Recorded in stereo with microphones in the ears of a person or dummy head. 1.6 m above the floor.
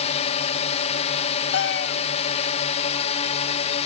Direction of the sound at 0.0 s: 30° left (ahead or behind).